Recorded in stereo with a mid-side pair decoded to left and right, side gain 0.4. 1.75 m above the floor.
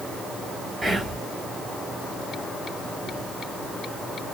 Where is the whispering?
30° right, 1.4 m.